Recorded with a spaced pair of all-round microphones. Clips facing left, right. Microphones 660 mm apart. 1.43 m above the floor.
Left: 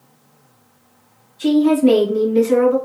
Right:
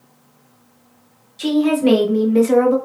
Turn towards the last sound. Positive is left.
turn(degrees=-65)  # may be behind; listen again after turning